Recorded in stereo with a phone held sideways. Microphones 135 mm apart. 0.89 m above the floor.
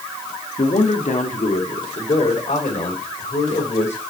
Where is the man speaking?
70° left (ahead or behind), 1.3 m.